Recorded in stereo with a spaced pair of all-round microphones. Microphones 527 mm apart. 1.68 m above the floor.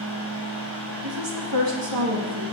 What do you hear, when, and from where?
0.0 s a fan: 60° right (ahead or behind), 5.5 m
1.0 s a woman speaking: 55° right (ahead or behind), 2.5 m